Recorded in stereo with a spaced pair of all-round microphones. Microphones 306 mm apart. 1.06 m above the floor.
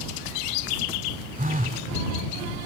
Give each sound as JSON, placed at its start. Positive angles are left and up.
{"t": 1.4, "sound": "a phone buzzing", "side_deg": -25}